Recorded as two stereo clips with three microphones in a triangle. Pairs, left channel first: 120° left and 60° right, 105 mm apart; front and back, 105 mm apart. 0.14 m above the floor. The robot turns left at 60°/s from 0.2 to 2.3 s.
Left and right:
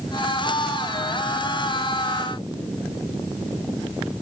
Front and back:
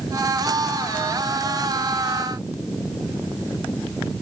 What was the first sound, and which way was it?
Only background noise.